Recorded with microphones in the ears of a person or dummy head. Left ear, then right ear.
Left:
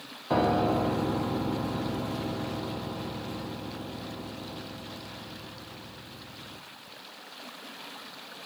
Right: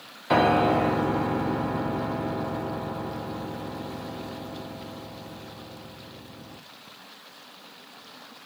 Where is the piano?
50° right (ahead or behind), 0.5 m.